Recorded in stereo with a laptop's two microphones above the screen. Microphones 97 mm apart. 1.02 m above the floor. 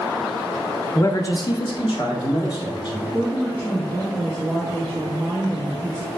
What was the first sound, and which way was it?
A man speaking, 30° left (ahead or behind).